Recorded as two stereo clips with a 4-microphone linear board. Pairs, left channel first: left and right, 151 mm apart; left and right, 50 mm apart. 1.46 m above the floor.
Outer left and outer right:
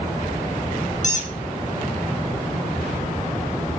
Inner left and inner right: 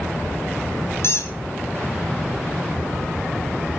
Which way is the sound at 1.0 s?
55° left (ahead or behind).